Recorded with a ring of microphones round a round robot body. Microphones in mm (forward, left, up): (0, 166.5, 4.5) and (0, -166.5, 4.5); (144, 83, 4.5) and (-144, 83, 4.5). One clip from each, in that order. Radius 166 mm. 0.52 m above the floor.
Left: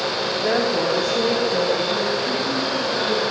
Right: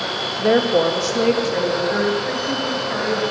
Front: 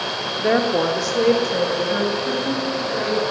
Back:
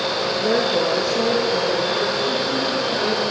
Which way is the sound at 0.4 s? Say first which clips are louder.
Right 6 dB, front 2 dB; 5° left.